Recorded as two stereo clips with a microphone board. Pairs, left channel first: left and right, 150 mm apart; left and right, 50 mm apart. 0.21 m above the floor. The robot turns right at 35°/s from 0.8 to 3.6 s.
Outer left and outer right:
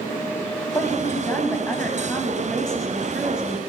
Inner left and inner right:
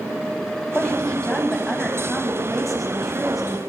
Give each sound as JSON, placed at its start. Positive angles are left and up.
{"t": 0.8, "sound": "a woman speaking", "side_deg": 20, "distance_m": 1.1}